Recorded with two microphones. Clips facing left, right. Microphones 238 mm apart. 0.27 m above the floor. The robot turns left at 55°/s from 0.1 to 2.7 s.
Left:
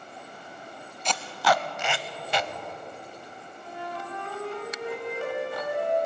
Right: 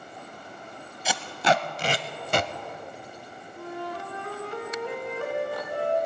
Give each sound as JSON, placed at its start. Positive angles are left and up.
{"t": 1.1, "sound": "tape being pulled", "side_deg": -5, "distance_m": 0.5}
{"t": 3.6, "sound": "a flute", "side_deg": -60, "distance_m": 2.5}